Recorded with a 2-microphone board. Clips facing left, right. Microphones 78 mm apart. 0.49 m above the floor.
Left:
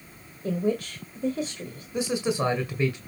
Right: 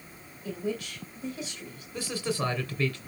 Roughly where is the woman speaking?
Left.